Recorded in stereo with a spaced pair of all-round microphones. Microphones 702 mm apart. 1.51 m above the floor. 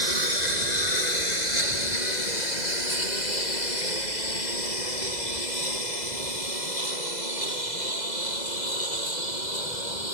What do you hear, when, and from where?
0.0 s a lawn mower: 75° left (ahead or behind); by 10.2 s 85° left